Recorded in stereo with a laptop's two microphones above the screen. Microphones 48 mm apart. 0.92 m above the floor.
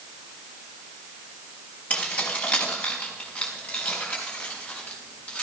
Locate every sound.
1.9 s keys jangling: 35° left (ahead or behind), 3.5 m; by 5.4 s 30° left (ahead or behind), 6 m